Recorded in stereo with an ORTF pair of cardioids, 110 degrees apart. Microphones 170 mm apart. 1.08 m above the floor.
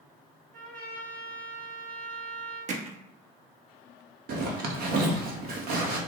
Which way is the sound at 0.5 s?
60° right.